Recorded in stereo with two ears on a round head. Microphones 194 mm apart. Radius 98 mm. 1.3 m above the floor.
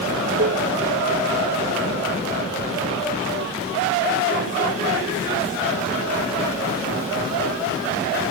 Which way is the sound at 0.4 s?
45° right (ahead or behind).